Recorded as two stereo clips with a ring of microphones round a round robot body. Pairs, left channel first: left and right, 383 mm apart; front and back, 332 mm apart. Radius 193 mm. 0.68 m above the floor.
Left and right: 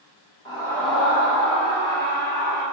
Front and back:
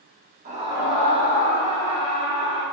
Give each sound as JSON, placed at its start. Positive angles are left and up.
{"t": 0.5, "sound": "a scream", "azimuth_deg": 155, "distance_m": 0.7}